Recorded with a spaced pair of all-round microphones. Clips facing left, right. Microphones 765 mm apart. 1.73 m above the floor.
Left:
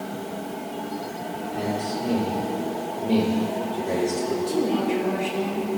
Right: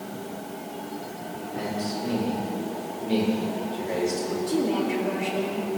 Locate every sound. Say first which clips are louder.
1.5 s a man speaking: left 2 dB; 70° left (ahead or behind), 6.5 m
4.5 s a woman speaking: even; 30° left (ahead or behind), 5 m